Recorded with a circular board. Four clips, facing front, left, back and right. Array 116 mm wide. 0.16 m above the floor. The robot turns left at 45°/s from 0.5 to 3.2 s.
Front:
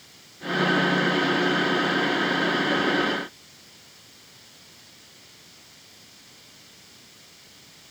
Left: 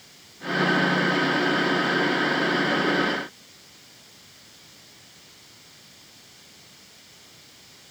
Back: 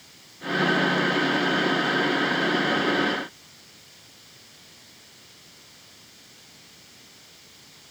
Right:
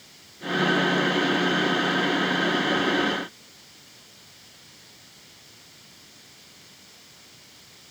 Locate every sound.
Only background noise.